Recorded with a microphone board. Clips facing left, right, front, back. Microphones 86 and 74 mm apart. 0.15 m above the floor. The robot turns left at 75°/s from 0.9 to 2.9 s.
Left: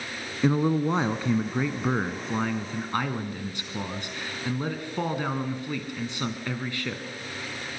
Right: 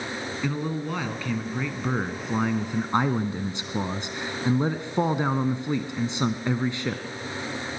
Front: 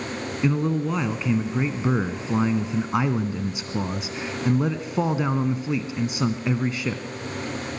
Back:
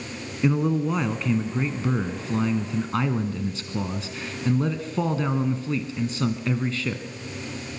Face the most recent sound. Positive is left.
turn(degrees=-55)